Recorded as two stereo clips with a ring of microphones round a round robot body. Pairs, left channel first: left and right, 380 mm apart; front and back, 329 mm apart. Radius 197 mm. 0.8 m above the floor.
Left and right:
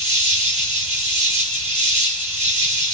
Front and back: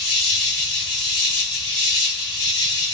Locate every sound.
0.0 s an insect: 30° right, 1.8 m